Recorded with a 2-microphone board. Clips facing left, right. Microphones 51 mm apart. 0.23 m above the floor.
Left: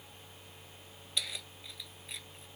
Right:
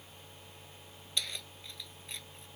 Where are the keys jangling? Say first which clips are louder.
Even; 5° left (ahead or behind).